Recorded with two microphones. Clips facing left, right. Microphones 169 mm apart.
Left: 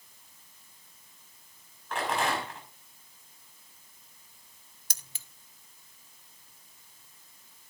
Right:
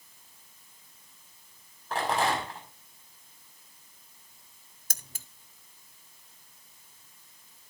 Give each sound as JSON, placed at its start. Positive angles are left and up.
{"t": 1.9, "sound": "a rattle", "side_deg": -35, "distance_m": 5.0}
{"t": 4.9, "sound": "keys jangling", "side_deg": -50, "distance_m": 0.6}